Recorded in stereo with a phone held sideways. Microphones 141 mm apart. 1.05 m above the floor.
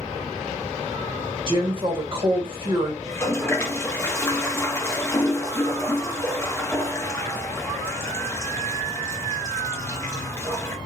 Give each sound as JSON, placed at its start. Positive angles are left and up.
{"t": 1.5, "sound": "a woman speaking", "side_deg": -40, "distance_m": 1.4}
{"t": 3.0, "sound": "a toilet flushing", "side_deg": 20, "distance_m": 0.6}